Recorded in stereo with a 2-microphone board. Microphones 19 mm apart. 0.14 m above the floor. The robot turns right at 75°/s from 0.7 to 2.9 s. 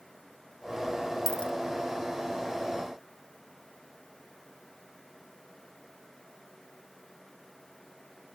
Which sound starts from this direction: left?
A dropped coin, at 1.3 s.